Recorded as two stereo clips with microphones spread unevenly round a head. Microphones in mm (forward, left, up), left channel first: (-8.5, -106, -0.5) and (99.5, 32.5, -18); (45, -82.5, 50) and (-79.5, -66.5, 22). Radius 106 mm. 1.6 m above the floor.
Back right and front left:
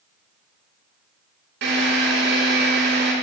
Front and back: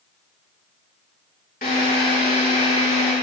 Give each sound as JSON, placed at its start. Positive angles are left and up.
{"t": 1.6, "sound": "a drill", "azimuth_deg": 40, "distance_m": 6.0}